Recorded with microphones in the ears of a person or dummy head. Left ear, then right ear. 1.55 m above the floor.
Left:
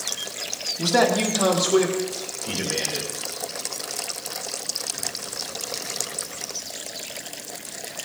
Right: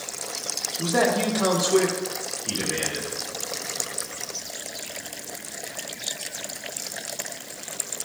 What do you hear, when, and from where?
0.8 s a man speaking: 35° left (ahead or behind), 1.2 m; by 3.1 s 5° left (ahead or behind), 2.5 m